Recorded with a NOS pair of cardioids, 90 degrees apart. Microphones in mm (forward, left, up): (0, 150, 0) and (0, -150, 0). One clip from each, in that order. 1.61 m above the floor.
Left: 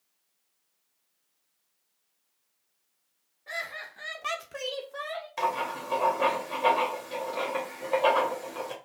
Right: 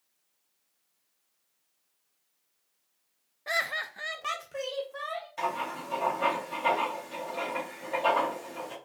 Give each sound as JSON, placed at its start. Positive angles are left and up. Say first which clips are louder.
{"t": 3.5, "sound": "laughter", "louder": "right 6 dB", "azimuth_deg": -55, "distance_m": 0.7}
{"t": 5.4, "sound": "writing", "louder": "left 4 dB", "azimuth_deg": 55, "distance_m": 1.5}